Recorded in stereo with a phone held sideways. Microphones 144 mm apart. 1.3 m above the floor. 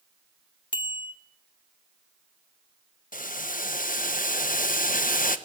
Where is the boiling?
70° left (ahead or behind), 1.2 m.